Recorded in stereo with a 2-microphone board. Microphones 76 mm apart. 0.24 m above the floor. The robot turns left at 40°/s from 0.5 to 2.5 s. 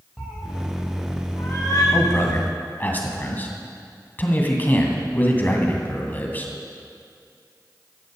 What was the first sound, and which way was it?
A cat meowing, 10° right (ahead or behind).